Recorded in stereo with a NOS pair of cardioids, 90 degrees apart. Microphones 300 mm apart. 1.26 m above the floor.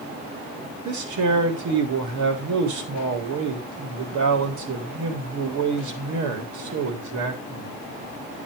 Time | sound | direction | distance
0.8 | a man speaking | 70° right | 3.5 m